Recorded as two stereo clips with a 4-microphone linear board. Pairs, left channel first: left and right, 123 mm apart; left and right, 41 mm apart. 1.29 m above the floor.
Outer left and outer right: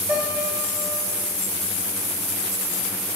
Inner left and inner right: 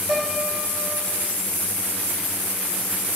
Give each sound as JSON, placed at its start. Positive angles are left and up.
{"t": 0.1, "sound": "a piano", "side_deg": -10, "distance_m": 2.5}